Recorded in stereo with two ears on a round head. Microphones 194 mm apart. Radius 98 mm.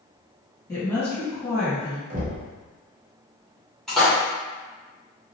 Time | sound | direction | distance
0.7 | a woman speaking | 15° left (ahead or behind) | 1.7 m
2.1 | knocking | 35° right (ahead or behind) | 0.7 m
3.9 | a splash | centre (ahead or behind) | 1.3 m